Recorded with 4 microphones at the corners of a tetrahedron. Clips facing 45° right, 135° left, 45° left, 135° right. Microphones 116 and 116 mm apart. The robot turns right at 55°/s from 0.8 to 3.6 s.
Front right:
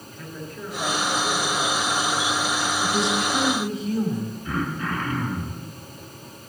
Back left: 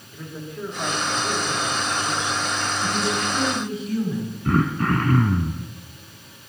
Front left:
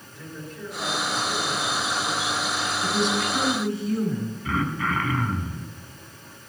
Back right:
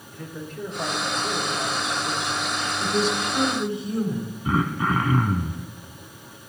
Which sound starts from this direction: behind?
Throat clearing, at 4.5 s.